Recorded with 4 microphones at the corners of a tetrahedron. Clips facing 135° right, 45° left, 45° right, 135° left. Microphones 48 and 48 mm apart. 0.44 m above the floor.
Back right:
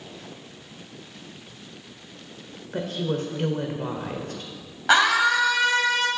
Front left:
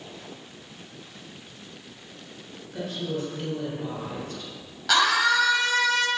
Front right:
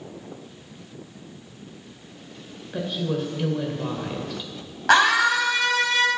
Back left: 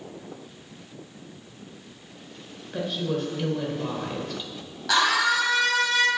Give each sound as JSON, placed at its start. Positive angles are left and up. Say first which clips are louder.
{"t": 2.7, "sound": "a woman speaking", "louder": "back right 4 dB, front right 1 dB", "azimuth_deg": -130, "distance_m": 1.5}
{"t": 4.9, "sound": "a scream", "louder": "back right 2 dB, front right 4 dB", "azimuth_deg": -75, "distance_m": 2.5}